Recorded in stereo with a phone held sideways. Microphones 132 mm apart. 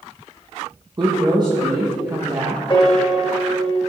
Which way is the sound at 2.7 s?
35° left (ahead or behind).